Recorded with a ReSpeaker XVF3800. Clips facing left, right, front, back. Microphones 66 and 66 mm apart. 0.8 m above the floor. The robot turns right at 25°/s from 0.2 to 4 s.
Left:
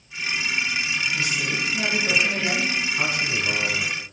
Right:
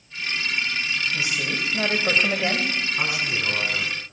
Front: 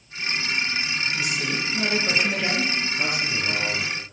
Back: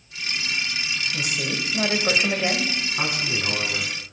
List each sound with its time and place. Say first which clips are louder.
1.1 s a woman speaking: left 1 dB, front 1 dB; 155° right, 3 m; by 2.7 s 115° right, 3 m
3.0 s a man speaking: left 1 dB, even; 170° right, 7 m; by 4.0 s 145° right, 7 m